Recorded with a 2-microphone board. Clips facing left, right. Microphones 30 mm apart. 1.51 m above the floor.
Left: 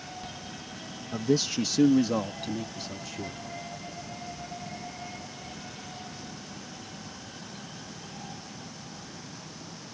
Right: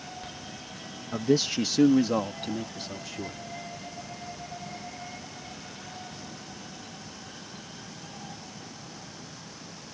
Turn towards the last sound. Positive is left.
turn(degrees=-10)  # may be behind; listen again after turning